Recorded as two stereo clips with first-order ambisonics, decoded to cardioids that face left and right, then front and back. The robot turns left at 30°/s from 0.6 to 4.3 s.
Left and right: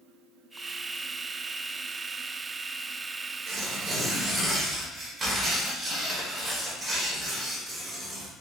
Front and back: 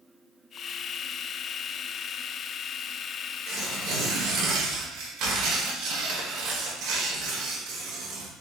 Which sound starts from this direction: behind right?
Tearing paper, at 3.5 s.